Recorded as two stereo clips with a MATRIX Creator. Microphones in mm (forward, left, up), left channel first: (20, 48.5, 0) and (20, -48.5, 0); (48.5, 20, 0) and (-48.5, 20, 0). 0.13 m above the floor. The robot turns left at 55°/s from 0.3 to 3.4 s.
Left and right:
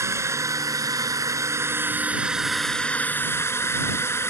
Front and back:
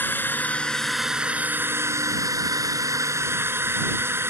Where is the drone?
55° right; by 4.3 s 135° left.